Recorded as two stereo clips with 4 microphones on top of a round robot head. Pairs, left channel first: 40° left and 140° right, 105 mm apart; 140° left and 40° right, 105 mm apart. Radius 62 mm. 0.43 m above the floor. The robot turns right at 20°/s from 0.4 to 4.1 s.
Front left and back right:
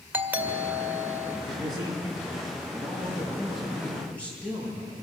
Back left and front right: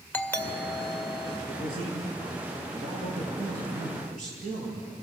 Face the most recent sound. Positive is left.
turn(degrees=-40)